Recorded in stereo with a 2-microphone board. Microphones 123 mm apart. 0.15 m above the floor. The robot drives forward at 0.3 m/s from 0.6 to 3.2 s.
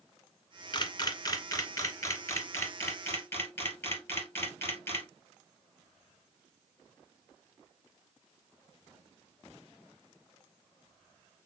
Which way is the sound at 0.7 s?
40° left (ahead or behind).